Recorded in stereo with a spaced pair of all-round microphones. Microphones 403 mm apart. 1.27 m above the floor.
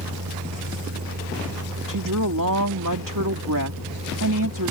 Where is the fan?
45° right (ahead or behind).